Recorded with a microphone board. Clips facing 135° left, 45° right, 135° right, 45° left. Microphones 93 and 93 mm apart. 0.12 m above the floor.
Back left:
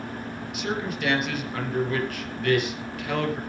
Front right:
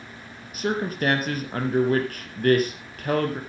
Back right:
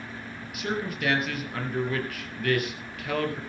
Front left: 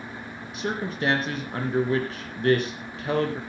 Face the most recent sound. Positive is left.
turn(degrees=-5)